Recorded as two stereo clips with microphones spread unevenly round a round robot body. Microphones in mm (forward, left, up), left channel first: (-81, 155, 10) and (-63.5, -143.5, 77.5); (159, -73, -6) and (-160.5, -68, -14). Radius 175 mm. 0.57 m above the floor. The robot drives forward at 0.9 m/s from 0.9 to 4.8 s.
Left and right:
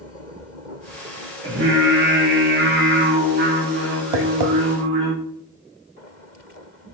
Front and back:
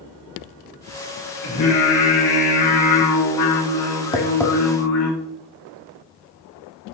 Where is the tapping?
75° right, 1.6 m; by 4.5 s 90° right, 1.6 m.